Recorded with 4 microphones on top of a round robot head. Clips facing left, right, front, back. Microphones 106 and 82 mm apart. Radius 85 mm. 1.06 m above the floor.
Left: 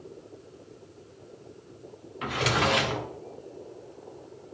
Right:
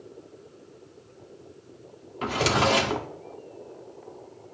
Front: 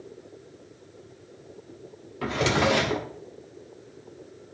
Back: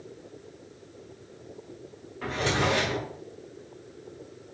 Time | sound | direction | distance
2.2 | a drawer | 40° right | 0.7 m